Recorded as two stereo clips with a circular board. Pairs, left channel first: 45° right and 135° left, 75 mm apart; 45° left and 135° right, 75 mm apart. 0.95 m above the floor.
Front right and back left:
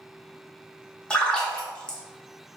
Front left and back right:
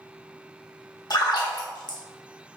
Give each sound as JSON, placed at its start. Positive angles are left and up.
{"t": 1.1, "sound": "a splash", "azimuth_deg": 30, "distance_m": 0.7}